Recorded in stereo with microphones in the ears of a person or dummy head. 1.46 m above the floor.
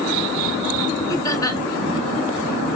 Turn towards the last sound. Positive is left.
turn(degrees=20)  # may be behind; listen again after turning